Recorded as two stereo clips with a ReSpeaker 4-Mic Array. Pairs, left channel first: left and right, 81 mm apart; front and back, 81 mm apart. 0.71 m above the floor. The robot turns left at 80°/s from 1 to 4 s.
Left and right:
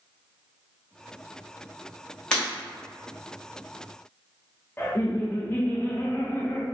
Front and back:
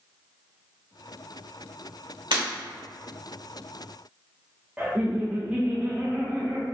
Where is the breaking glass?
170° left, 1.6 m; by 2.4 s 160° left, 1.6 m.